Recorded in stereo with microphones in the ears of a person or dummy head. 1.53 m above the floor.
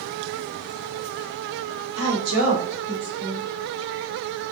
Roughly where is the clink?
No clink in this recording.